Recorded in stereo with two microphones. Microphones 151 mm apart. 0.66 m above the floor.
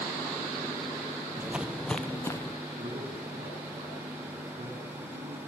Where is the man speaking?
40° right (ahead or behind), 7 m.